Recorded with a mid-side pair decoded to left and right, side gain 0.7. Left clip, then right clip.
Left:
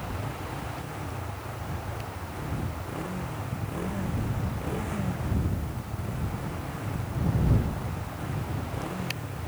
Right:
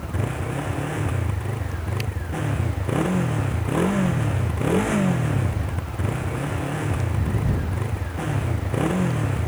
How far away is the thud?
No thud in this recording.